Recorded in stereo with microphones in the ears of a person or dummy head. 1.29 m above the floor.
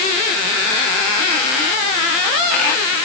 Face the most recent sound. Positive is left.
No sound to turn to.